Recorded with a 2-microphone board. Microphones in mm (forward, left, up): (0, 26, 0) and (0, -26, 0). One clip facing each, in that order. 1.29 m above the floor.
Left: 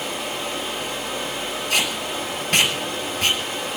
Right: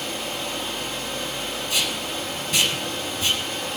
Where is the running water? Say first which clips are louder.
Left 2 dB; 5° left (ahead or behind), 7 m.